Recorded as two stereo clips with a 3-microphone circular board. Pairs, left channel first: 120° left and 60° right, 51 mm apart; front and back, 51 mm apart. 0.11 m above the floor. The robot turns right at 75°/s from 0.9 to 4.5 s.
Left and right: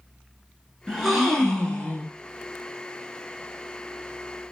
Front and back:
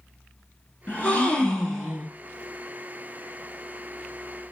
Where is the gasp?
10° left, 0.8 m; by 2.1 s 105° left, 0.8 m.